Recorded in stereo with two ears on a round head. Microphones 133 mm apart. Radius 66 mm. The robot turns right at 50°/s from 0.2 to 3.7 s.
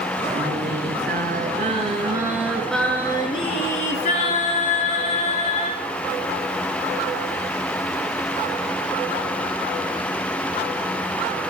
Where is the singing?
115° right, 5.5 m; by 5.8 s 55° left, 5.5 m.